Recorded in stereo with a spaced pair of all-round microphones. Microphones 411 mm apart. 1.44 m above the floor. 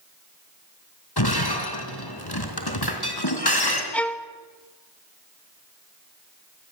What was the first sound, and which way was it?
Breaking glass, 65° left (ahead or behind).